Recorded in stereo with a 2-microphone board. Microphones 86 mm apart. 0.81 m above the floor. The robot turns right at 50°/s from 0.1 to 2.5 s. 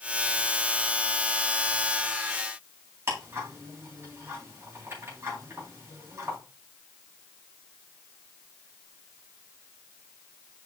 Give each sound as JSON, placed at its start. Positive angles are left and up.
{"t": 3.1, "sound": "ticking", "side_deg": -30, "distance_m": 4.0}